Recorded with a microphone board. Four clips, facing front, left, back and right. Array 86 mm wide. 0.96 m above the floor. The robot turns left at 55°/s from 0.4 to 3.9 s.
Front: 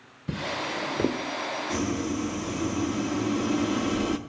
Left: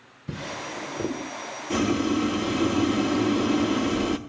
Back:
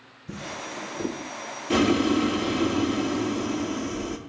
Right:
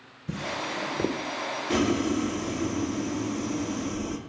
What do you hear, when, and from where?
0.3 s a drawer: 15° left, 0.8 m; by 1.2 s 30° right, 0.8 m
1.7 s boiling: 170° right, 0.6 m; by 4.2 s 70° left, 0.6 m